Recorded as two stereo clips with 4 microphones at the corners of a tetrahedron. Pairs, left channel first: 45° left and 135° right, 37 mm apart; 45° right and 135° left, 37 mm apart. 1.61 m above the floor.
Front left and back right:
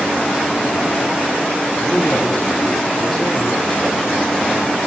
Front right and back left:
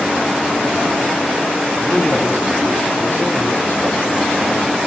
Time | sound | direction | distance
1.8 | a man speaking | 35° right | 3.5 m